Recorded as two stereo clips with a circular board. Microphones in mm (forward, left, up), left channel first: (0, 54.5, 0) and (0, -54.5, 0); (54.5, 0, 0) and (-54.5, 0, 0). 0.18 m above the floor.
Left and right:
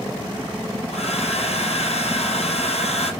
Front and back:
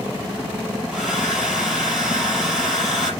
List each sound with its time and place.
0.9 s a hair dryer: 95° left, 3.5 m